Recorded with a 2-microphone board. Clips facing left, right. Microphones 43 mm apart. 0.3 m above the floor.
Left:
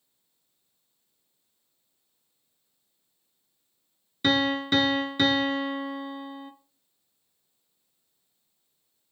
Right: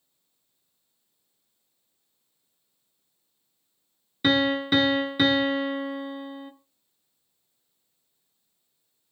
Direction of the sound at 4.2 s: 10° right (ahead or behind).